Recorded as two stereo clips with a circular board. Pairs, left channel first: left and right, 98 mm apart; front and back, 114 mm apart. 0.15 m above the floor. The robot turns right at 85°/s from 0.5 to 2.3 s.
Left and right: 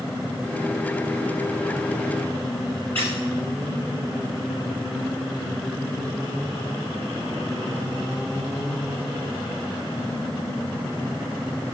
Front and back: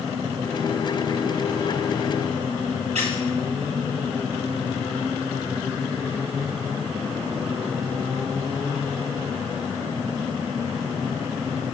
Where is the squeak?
165° left, 5 m.